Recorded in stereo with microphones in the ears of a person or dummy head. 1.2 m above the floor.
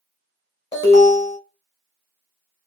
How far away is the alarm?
About 1.4 m.